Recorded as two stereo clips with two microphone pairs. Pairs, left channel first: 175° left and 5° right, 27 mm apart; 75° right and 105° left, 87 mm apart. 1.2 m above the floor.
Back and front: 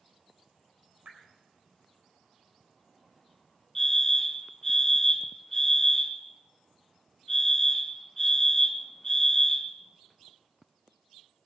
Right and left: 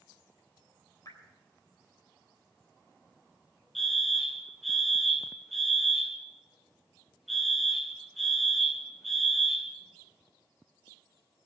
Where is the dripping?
30° right, 3.5 m.